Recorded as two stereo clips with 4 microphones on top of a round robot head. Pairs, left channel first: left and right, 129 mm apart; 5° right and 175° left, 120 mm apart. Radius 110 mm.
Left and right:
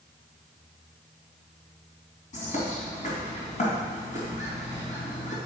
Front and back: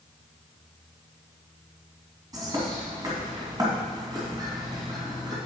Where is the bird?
115° left, 3 m.